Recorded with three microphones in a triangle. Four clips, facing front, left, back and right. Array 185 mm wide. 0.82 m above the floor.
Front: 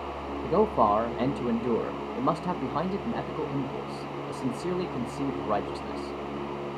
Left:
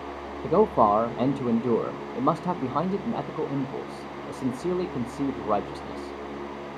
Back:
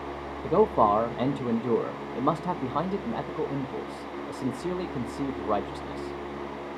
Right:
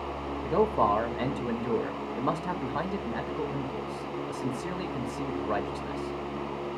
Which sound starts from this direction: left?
A man speaking, at 0.4 s.